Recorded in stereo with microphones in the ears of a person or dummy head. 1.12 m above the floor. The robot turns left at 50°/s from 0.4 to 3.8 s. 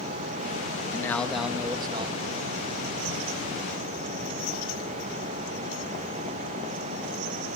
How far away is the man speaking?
About 1.1 m.